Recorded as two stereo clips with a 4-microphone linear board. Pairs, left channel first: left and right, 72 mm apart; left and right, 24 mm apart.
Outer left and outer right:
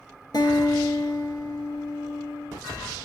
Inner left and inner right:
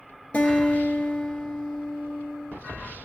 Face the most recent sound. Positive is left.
turn(degrees=70)  # may be behind; listen again after turning